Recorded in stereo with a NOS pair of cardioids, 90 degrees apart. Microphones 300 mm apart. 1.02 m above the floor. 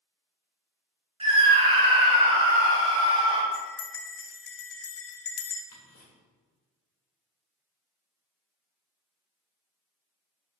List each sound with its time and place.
1.2 s a scream: 20° right, 1.4 m
3.5 s a bell: 45° left, 0.6 m
5.7 s ticking: 45° left, 1.6 m